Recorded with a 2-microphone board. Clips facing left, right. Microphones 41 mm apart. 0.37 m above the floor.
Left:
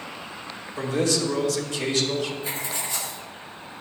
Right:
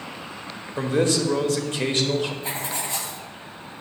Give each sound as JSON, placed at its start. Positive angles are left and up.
{"t": 0.8, "sound": "a man speaking", "side_deg": -35, "distance_m": 1.0}
{"t": 2.4, "sound": "writing", "side_deg": -55, "distance_m": 1.5}